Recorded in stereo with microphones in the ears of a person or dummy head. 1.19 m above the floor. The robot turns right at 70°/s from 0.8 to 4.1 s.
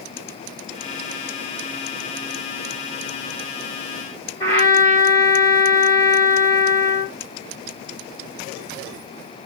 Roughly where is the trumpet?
Centre.